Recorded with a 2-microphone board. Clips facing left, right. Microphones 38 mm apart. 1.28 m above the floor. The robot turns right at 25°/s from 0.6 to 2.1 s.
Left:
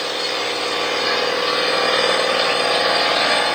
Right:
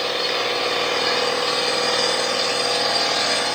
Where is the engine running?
10° right, 3 m; by 3.5 s 30° left, 3 m.